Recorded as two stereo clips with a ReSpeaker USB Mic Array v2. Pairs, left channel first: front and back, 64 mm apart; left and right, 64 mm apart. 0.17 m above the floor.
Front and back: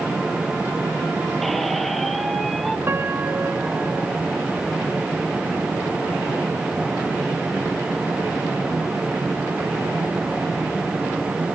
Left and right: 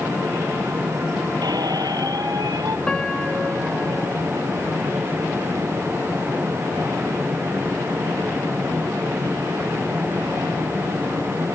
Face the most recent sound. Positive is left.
turn(degrees=160)